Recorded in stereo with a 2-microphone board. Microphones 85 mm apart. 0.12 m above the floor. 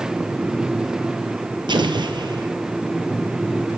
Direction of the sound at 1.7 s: 60° right (ahead or behind).